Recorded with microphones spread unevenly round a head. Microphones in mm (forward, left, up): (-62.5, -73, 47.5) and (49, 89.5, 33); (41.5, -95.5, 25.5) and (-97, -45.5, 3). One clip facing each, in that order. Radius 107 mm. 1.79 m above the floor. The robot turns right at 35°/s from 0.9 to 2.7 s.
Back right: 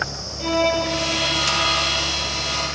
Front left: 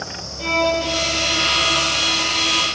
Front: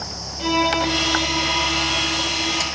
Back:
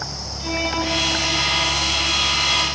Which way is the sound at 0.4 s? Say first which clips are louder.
Even, front 4 dB; 30° right.